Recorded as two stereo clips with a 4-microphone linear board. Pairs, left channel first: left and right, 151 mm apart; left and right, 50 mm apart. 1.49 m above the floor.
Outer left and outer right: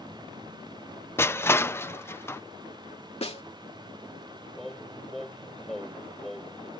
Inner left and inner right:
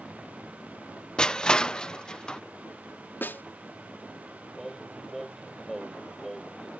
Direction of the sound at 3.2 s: 45° left (ahead or behind).